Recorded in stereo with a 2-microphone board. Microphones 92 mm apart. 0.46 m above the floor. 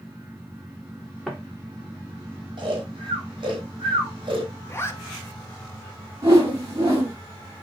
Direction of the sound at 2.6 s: 55° right (ahead or behind).